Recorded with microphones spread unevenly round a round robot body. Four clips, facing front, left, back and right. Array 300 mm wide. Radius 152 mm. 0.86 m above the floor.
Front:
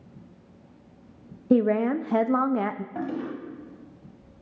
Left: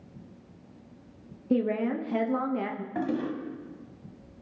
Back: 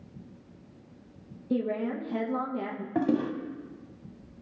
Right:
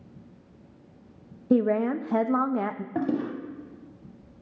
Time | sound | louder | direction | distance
1.5 | a woman speaking | right 4 dB, front 8 dB | 30° right | 0.7 m
3.0 | a toilet flushing | right 2 dB, back 9 dB | 150° right | 0.9 m